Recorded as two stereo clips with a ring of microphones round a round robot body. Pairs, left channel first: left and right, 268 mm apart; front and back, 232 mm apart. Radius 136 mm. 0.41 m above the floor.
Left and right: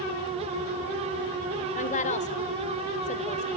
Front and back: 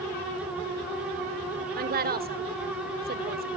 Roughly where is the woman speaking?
Behind left.